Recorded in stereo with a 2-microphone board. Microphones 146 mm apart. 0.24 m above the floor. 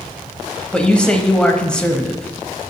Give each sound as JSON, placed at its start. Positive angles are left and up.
{"t": 0.7, "sound": "a man speaking", "side_deg": 5, "distance_m": 1.1}